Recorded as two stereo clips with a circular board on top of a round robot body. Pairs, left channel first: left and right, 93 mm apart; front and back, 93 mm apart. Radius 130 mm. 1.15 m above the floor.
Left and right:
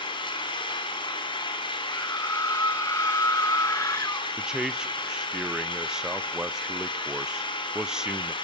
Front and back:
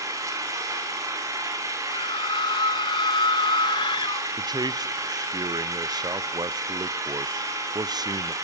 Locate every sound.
0.0 s an engine running: 125° left, 4 m
1.9 s a scream: 30° left, 1.5 m
4.4 s a man speaking: 170° right, 0.6 m